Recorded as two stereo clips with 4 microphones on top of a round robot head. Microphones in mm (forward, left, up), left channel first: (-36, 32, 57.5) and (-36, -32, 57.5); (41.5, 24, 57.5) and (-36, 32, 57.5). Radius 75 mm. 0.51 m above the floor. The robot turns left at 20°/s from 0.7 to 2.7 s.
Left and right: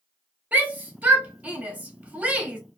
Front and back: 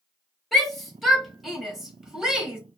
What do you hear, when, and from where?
0.5 s a shout: 85° right, 1.3 m; by 2.6 s 125° right, 1.3 m